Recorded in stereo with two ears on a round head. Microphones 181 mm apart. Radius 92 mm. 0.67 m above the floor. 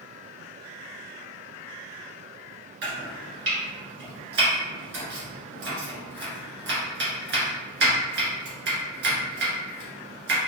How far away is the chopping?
About 1.4 m.